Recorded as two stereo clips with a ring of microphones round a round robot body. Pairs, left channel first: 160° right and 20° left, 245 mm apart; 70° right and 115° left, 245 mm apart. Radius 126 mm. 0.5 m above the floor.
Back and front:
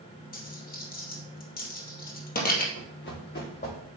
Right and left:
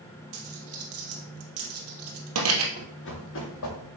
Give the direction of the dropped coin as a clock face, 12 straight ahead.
7 o'clock.